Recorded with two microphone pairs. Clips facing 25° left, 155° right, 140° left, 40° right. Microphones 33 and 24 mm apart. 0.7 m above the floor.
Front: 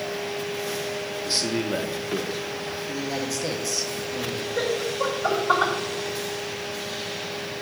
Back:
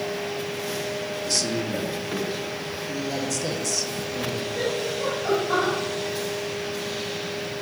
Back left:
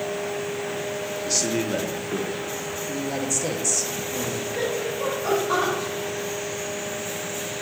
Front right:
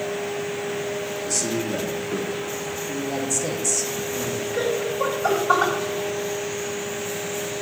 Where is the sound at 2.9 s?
80° left, 1.0 m.